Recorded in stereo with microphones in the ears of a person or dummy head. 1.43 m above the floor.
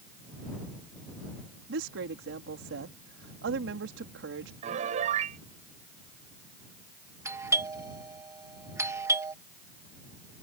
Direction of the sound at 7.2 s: 20° right (ahead or behind).